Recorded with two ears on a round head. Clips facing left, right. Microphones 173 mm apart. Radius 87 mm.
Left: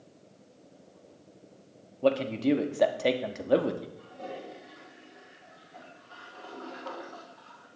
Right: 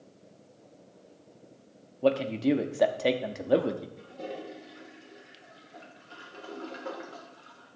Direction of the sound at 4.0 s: 35° right (ahead or behind).